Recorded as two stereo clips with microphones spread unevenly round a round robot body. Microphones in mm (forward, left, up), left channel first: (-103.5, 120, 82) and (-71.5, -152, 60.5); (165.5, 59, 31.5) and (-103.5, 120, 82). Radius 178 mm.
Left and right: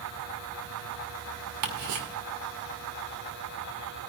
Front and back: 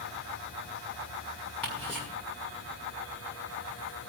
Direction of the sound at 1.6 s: 100° right.